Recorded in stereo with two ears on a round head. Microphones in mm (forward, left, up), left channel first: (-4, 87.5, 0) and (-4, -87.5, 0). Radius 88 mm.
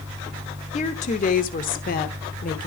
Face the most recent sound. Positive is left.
turn(degrees=45)  # may be behind; listen again after turning